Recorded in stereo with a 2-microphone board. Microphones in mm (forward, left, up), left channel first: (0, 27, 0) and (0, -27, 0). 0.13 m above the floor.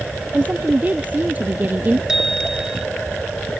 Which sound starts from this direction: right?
A woman speaking, at 0.3 s.